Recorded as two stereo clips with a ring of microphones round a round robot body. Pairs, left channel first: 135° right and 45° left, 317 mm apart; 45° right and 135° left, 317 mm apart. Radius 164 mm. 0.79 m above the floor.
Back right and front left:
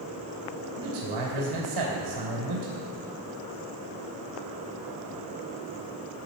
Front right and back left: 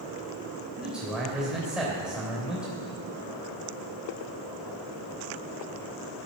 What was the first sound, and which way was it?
A man speaking, 50° left.